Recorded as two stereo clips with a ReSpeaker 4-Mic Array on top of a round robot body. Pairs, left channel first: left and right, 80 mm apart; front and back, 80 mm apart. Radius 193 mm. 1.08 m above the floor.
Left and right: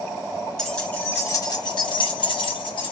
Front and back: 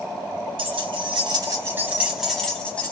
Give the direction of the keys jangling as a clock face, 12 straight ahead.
6 o'clock.